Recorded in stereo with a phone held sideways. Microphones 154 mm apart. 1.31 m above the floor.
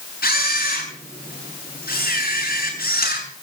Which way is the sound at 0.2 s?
75° left (ahead or behind).